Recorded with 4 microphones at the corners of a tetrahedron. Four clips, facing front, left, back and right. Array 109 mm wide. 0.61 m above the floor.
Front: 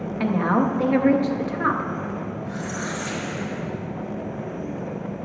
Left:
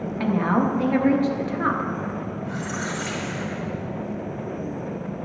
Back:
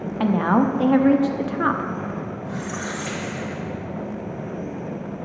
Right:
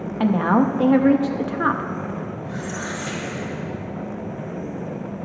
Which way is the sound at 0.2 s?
130° right.